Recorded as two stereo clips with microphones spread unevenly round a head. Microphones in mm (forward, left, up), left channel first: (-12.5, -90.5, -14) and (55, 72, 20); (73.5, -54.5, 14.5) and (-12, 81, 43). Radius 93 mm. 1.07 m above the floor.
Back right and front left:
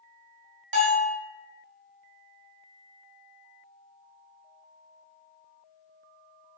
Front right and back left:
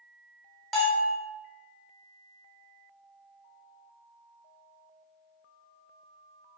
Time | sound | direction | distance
0.7 | a bell | 40° left | 1.3 m